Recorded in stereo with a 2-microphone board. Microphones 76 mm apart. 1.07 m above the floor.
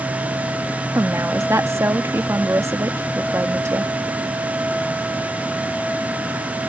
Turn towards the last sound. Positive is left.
turn(degrees=-35)  # may be behind; listen again after turning